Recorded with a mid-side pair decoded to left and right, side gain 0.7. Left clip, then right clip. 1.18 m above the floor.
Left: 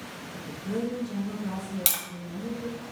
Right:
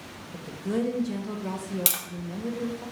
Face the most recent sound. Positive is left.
turn(degrees=-5)